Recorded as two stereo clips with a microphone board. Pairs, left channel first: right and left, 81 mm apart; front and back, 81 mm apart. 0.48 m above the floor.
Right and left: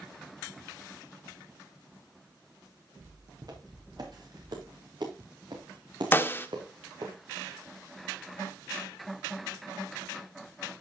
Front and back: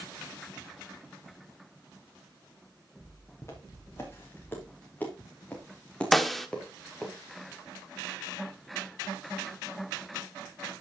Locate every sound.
3.4 s footsteps: 55° left, 4 m; by 7.1 s 85° left, 3.5 m
6.1 s a snare drum: 85° right, 0.9 m